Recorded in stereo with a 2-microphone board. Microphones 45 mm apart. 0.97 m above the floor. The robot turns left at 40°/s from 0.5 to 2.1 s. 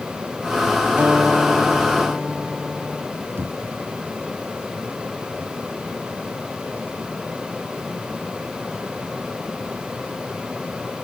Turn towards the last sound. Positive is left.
turn(degrees=-65)  # may be behind; listen again after turning